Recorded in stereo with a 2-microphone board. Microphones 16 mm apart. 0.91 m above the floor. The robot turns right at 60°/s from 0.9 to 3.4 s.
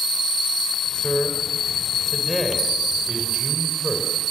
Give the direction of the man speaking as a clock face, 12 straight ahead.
9 o'clock.